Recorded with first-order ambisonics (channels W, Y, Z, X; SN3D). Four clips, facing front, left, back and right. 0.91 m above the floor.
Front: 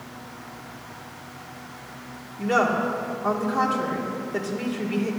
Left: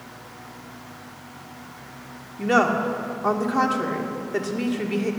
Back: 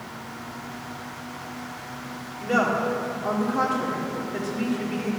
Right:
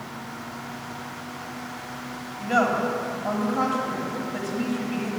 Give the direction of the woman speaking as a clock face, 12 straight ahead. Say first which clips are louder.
Left 2 dB, front 1 dB; 9 o'clock.